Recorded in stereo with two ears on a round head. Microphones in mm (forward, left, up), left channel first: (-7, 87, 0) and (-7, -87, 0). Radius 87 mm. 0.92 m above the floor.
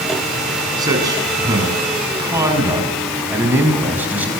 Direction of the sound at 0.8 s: 20° right (ahead or behind).